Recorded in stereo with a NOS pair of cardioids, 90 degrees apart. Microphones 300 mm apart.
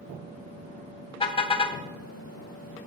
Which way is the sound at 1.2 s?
20° left.